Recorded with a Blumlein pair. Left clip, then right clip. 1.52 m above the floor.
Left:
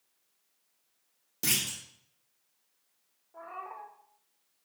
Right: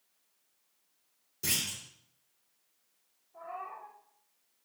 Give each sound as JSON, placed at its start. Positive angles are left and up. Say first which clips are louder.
{"t": 1.4, "sound": "a clunk", "louder": "left 2 dB", "azimuth_deg": 60, "distance_m": 3.0}
{"t": 3.3, "sound": "a cat meowing", "louder": "even", "azimuth_deg": 65, "distance_m": 3.0}